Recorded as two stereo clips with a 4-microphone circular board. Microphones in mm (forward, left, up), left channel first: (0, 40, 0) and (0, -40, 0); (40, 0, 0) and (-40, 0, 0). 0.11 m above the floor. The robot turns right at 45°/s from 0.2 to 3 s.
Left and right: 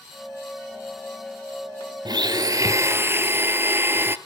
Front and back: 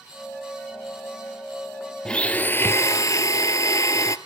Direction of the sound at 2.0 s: 80° right.